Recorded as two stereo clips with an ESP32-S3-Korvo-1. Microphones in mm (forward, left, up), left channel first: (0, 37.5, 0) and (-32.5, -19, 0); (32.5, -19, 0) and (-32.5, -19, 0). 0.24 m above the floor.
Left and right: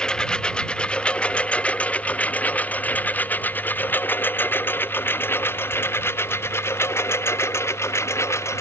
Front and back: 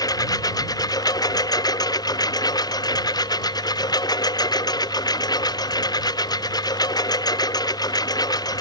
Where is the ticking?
No ticking in this recording.